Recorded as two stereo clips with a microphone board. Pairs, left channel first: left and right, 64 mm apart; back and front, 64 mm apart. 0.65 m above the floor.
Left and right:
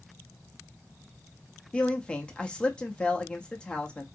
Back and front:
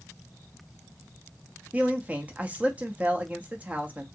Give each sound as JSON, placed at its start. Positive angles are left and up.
{"t": 1.7, "sound": "a man speaking", "azimuth_deg": 40, "distance_m": 0.6}